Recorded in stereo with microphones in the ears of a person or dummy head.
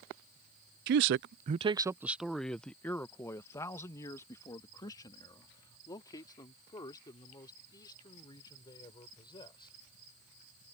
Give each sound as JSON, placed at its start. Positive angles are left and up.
{"t": 0.9, "sound": "a man speaking", "side_deg": -55}